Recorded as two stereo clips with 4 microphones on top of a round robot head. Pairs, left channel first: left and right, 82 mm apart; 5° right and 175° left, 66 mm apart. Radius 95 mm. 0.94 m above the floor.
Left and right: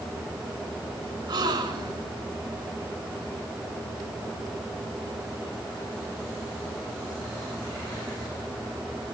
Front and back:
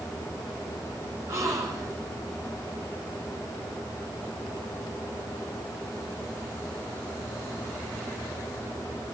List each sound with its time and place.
1.3 s a gasp: 125° right, 2.5 m